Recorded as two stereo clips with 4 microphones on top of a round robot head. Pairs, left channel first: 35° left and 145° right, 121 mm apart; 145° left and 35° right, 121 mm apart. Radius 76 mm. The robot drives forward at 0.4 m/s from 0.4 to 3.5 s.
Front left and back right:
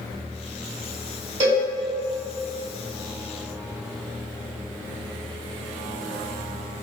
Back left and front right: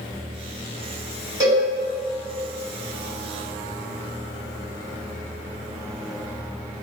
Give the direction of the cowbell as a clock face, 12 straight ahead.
3 o'clock.